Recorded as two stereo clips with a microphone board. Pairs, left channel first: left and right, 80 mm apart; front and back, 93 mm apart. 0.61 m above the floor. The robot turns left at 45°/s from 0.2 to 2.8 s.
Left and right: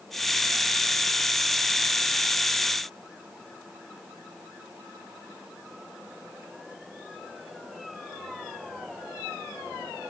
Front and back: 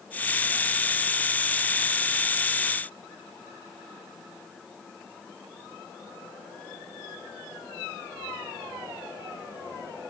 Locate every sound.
Only background noise.